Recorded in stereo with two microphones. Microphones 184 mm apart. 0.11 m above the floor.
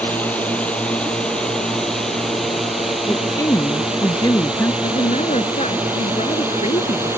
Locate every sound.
0.0 s a drone: 10° left (ahead or behind); by 7.2 s 10° right (ahead or behind)
3.1 s a woman speaking: 20° left (ahead or behind)
4.8 s a woman speaking: 40° left (ahead or behind)